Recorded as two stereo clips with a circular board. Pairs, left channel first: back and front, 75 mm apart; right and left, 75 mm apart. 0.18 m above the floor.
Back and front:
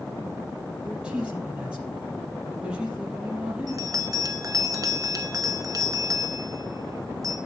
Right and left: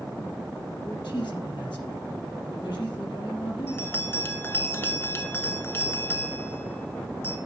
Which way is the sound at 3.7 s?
35° right.